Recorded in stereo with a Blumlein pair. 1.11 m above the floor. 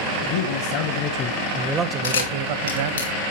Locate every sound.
0.2 s a man speaking: 55° left, 1.1 m; by 3.0 s 65° right, 1.1 m
2.0 s a camera shutter: 70° left, 1.8 m